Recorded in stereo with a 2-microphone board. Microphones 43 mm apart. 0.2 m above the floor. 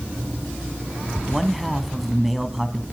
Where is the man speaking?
Centre (ahead or behind), 1.7 m.